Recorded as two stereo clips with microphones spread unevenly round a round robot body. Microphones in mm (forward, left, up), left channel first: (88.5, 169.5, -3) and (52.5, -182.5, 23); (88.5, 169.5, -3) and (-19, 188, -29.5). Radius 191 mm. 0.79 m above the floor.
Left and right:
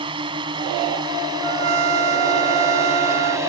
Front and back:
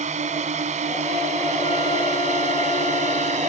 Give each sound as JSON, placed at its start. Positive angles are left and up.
{"t": 0.0, "sound": "a drone", "azimuth_deg": -175}
{"t": 1.4, "sound": "a trumpet", "azimuth_deg": -85}